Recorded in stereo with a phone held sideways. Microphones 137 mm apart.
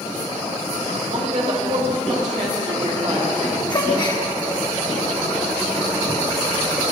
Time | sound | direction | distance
1.1 | a woman speaking | 55° right (ahead or behind) | 2.5 m
3.7 | a gasp | 35° left (ahead or behind) | 1.0 m